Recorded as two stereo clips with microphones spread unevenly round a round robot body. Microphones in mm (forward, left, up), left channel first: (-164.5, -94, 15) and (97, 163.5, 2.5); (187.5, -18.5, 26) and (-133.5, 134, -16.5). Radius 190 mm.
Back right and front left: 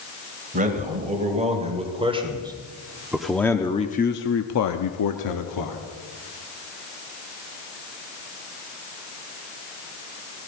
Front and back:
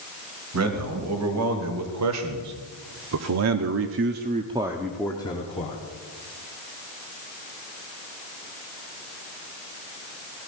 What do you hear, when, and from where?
0.5 s a man speaking: 115° left, 3 m; by 5.8 s 95° right, 1.4 m